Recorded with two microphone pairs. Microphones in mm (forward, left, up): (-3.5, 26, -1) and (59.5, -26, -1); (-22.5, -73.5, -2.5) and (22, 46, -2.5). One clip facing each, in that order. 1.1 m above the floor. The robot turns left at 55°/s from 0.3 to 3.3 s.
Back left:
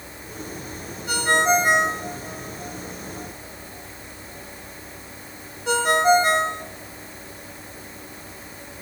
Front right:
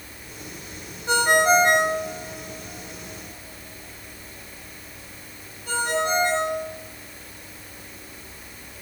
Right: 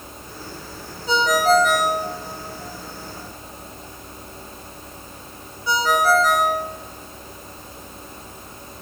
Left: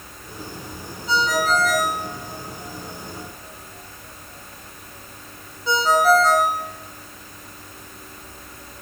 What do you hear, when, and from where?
1.1 s a ringtone: 100° right, 2.0 m; by 6.6 s 135° left, 2.0 m